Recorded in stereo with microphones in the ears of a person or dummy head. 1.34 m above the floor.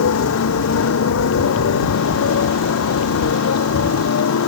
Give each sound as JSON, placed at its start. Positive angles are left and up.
{"t": 0.0, "sound": "a motorcycle", "side_deg": 70}